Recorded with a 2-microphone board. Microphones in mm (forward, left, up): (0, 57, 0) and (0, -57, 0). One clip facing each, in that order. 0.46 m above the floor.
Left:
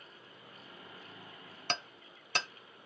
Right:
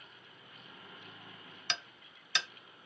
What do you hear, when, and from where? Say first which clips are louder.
1.7 s hammering: left 5 dB; 45° left (ahead or behind), 0.5 m